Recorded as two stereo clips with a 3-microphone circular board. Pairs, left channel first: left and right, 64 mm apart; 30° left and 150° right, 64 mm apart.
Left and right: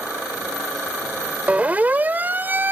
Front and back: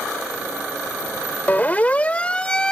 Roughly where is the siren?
Ahead right.